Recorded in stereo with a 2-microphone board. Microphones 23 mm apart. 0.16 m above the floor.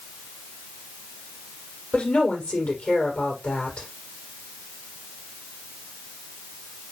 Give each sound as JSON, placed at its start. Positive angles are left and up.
{"t": 1.9, "sound": "a woman speaking", "side_deg": 70, "distance_m": 5.5}